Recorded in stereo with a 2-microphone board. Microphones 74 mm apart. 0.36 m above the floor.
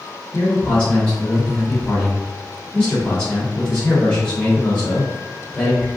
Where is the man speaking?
20° left (ahead or behind), 1.0 m.